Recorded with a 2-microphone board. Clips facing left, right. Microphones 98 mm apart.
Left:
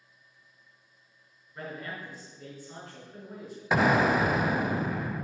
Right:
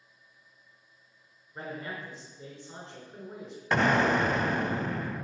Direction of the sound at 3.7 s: 5° left (ahead or behind).